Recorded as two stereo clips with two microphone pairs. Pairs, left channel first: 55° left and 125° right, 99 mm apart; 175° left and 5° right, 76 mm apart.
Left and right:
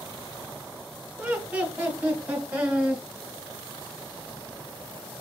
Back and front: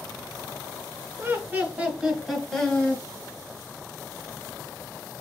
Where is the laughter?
45° right, 1.9 m; by 3.0 s 170° right, 1.3 m.